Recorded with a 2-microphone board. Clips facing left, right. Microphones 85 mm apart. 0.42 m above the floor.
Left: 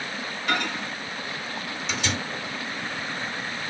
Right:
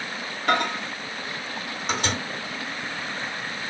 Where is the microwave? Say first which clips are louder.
Right 4 dB; 50° right (ahead or behind), 1.4 m.